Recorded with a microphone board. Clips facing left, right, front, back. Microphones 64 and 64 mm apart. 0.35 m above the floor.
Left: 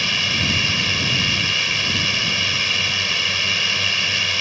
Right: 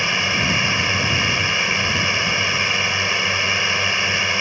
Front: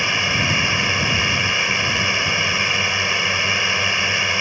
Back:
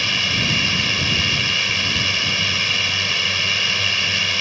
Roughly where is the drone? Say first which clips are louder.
Right 2 dB, front 2 dB; ahead right.